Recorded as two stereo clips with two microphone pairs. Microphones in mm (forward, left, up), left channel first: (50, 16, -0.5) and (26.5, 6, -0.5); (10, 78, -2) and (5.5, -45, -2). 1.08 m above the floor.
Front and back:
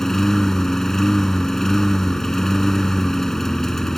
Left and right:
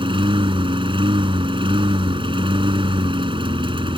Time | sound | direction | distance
0.0 | a lawn mower | 50° right | ?